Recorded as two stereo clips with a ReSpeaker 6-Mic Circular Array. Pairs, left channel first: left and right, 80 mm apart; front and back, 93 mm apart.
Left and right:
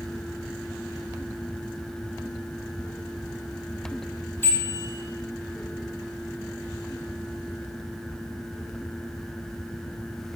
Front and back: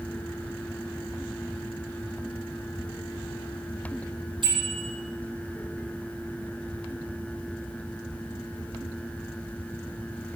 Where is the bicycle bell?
150° left, 7.5 m.